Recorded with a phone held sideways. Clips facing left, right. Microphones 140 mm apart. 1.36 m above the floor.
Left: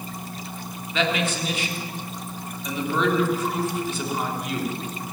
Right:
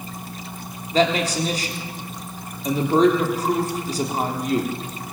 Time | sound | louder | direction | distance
0.9 | a man speaking | right 5 dB | 40° right (ahead or behind) | 3.5 m